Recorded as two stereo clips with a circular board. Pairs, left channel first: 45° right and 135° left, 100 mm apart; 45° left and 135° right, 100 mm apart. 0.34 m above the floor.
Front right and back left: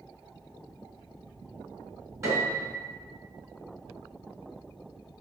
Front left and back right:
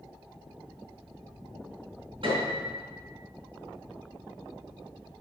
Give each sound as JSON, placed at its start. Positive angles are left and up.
{"t": 2.2, "sound": "a piano", "azimuth_deg": -165, "distance_m": 4.0}